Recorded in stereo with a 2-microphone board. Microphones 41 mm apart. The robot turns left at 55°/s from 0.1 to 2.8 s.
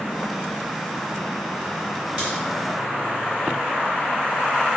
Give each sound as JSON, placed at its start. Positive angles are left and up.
{"t": 2.2, "sound": "a crack", "side_deg": -25, "distance_m": 2.0}